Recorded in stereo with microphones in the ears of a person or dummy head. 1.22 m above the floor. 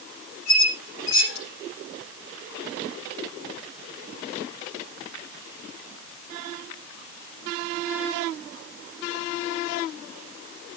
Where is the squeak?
60° left (ahead or behind), 5.5 m.